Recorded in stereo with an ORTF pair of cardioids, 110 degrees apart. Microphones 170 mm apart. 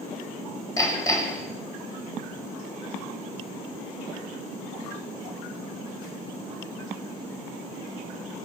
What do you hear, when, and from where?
0.8 s hammering: 20° left, 4 m